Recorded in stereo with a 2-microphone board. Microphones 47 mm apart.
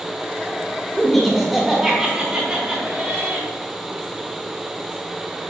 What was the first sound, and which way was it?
Laughter, 5° left (ahead or behind).